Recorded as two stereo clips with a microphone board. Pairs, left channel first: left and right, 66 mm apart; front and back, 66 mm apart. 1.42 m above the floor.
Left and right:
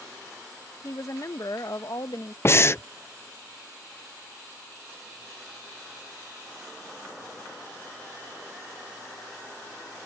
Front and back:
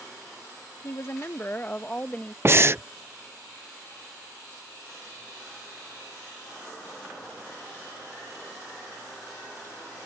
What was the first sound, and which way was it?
A woman speaking, 45° left.